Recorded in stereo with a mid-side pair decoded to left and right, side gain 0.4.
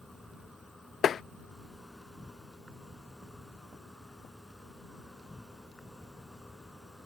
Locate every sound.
0.0 s an insect: 10° left
1.0 s tapping: 55° left